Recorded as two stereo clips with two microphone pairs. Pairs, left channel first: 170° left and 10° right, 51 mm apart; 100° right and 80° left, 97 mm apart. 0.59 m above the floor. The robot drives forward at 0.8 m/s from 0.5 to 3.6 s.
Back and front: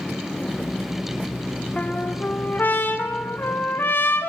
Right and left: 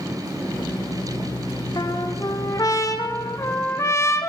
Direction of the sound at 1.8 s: 125° right.